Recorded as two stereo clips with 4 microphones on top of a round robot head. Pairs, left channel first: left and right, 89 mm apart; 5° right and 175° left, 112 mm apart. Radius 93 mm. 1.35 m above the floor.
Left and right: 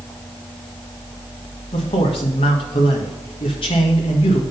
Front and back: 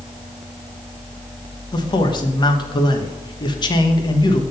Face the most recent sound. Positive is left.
turn(degrees=45)